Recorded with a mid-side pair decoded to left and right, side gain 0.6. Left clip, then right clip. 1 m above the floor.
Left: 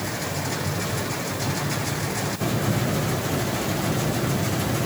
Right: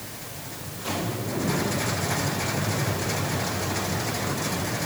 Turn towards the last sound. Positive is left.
No sound to turn to.